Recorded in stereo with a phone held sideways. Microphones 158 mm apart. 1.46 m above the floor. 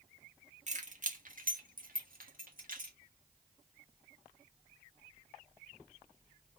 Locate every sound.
0.7 s keys jangling: 50° right (ahead or behind), 1.2 m; by 2.9 s 60° right (ahead or behind), 1.7 m